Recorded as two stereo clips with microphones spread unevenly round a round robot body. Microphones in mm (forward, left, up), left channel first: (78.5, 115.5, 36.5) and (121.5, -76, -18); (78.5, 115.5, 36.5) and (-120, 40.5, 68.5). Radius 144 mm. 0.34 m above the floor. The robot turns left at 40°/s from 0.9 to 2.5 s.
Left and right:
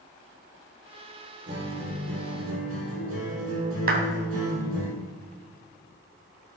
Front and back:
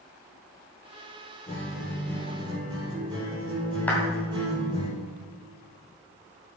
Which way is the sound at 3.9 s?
60° right.